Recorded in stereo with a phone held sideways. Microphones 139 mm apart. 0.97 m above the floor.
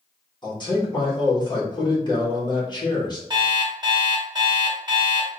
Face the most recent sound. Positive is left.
turn(degrees=-35)  # may be behind; listen again after turning